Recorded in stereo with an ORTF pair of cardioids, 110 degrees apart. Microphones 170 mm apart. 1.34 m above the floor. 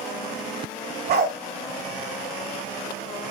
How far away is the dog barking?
About 3 m.